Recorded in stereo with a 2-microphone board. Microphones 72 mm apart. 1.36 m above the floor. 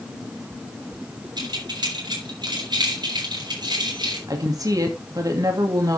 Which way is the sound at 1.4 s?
60° right (ahead or behind).